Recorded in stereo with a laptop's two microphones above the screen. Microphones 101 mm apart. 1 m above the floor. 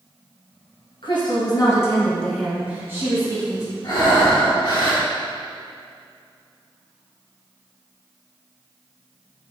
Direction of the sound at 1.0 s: 55° left (ahead or behind).